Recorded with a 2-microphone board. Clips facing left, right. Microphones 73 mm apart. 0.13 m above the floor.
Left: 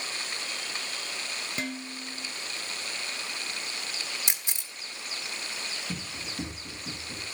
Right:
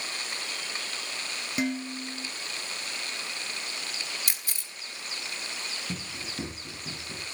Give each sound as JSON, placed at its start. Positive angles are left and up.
{"t": 1.6, "sound": "dishes clattering", "side_deg": -10, "distance_m": 1.0}
{"t": 4.3, "sound": "a camera shutter", "side_deg": 20, "distance_m": 1.6}
{"t": 5.9, "sound": "running footsteps", "side_deg": -30, "distance_m": 8.5}